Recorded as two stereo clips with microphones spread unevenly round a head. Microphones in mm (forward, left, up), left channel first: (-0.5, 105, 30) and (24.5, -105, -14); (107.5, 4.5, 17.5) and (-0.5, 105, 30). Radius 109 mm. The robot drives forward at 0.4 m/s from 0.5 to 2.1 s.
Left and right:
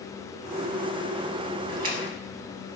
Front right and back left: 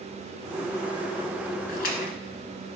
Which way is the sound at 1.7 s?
30° right.